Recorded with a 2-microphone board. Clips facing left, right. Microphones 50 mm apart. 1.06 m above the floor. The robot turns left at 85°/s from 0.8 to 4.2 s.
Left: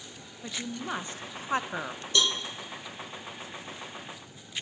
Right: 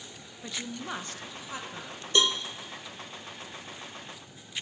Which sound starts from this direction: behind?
A woman speaking, at 0.4 s.